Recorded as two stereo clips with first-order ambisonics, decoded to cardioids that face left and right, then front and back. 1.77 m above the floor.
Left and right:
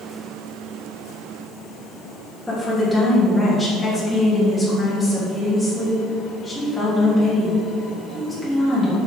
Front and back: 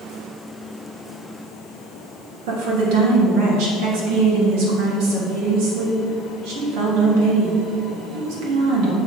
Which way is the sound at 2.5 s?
175° left.